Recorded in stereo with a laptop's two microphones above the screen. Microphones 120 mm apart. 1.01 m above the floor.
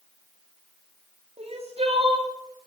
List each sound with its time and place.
1.4 s crying: 55° right (ahead or behind), 2 m